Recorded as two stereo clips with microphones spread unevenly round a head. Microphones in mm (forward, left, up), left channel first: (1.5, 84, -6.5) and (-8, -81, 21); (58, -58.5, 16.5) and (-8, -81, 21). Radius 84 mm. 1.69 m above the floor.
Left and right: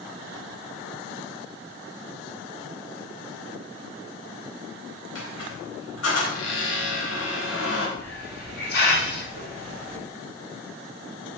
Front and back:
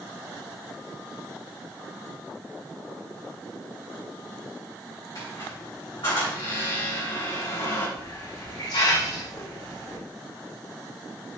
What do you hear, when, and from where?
5.2 s a squeak: 85° left, 3.5 m
8.0 s a hiss: 50° left, 3.5 m